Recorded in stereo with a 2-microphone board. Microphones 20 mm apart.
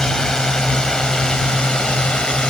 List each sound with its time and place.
0.0 s a drone: 35° left (ahead or behind); by 2.5 s 45° left (ahead or behind)